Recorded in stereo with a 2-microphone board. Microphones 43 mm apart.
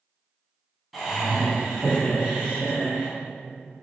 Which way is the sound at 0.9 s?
Centre (ahead or behind).